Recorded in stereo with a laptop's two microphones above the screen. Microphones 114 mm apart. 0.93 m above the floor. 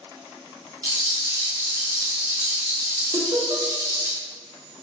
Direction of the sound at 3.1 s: 50° right (ahead or behind).